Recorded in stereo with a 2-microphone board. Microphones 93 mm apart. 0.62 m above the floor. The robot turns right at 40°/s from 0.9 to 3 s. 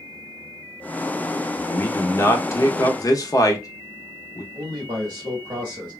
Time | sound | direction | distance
1.6 | a man speaking | 15° left (ahead or behind) | 0.7 m
4.5 | a man speaking | 45° right (ahead or behind) | 1.2 m